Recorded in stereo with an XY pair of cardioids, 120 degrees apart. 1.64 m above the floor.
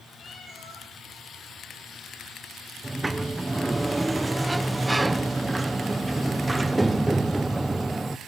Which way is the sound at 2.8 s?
10° right.